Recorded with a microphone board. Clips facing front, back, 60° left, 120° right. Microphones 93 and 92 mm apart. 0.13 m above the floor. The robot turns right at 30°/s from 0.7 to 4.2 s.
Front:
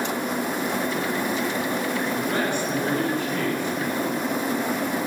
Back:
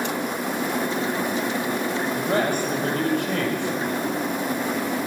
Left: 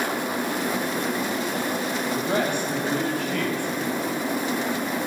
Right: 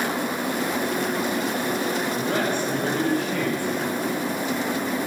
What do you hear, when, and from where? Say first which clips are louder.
2.2 s a man speaking: back 2 dB, even; 120° left, 5 m; by 3.8 s 165° left, 5 m